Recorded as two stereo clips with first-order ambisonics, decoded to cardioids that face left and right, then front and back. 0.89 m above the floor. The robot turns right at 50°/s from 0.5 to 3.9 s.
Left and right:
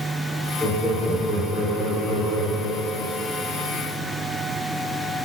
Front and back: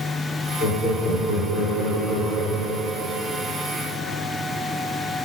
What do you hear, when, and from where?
0.6 s laughter: 25° right, 2 m; by 3.2 s 110° left, 2 m